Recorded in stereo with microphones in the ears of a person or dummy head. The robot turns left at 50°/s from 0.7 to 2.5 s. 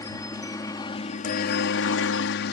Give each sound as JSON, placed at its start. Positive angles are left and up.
{"t": 0.0, "sound": "a helicopter", "azimuth_deg": 155}